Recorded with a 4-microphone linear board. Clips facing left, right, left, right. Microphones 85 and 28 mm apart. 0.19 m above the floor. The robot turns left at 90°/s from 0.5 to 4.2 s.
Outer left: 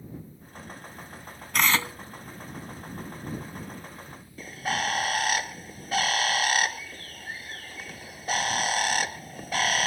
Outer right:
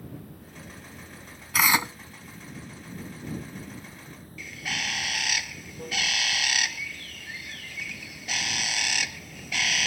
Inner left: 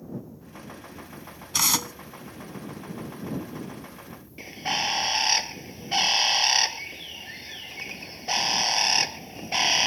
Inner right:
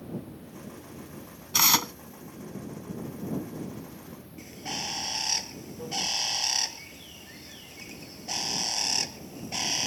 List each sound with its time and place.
0.0 s running water: 75° right; by 9.9 s 45° right
1.5 s tearing paper: 5° right; by 1.9 s 40° right
4.4 s a bird: 40° left (ahead or behind)